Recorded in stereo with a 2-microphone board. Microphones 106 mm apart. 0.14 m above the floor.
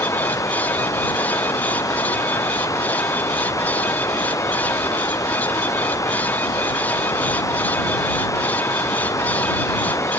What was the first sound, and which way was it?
Running water, 30° left (ahead or behind).